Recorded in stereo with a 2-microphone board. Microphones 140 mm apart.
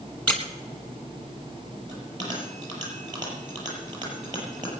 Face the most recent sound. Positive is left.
turn(degrees=-30)  # may be behind; listen again after turning